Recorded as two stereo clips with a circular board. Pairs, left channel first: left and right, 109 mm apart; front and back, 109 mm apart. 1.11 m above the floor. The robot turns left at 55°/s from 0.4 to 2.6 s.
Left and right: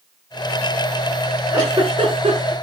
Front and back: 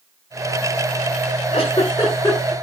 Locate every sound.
1.5 s a giggle: 30° right, 8 m; by 2.5 s 85° right, 8 m